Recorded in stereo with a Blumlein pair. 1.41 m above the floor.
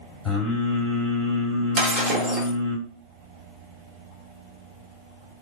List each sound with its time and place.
0.2 s singing: 10° left, 1.6 m
1.8 s breaking glass: 20° right, 1.5 m